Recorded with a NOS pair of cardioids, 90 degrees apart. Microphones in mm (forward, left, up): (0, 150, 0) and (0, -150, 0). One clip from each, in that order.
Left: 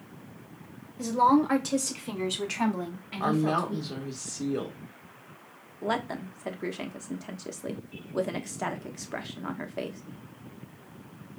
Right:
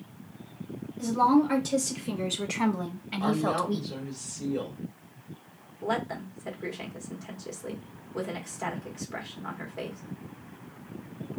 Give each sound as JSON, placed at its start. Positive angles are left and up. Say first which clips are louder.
{"t": 1.0, "sound": "a woman speaking", "louder": "left 1 dB", "azimuth_deg": 30, "distance_m": 3.0}
{"t": 3.2, "sound": "a woman speaking", "louder": "left 1 dB", "azimuth_deg": 45, "distance_m": 1.7}
{"t": 5.8, "sound": "a woman speaking", "louder": "even", "azimuth_deg": 25, "distance_m": 1.2}